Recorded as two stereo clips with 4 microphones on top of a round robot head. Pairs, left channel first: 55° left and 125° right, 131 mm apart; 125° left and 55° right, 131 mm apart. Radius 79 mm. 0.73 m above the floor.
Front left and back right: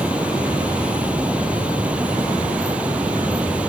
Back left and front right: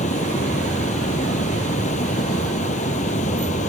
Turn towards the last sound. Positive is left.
turn(degrees=155)